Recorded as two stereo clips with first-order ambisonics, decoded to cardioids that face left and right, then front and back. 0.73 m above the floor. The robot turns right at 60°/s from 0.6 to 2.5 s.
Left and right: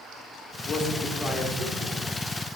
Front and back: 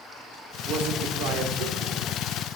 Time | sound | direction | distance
0.7 | a man speaking | 135° left | 1.9 m